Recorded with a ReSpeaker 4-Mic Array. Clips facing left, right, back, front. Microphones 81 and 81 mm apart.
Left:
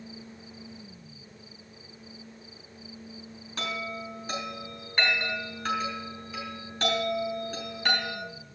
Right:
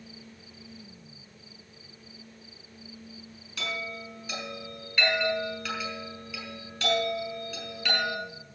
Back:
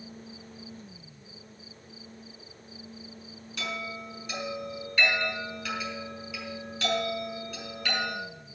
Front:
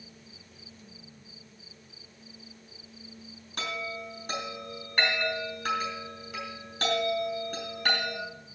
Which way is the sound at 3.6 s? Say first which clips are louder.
Left 2 dB, front 1 dB; 40° left.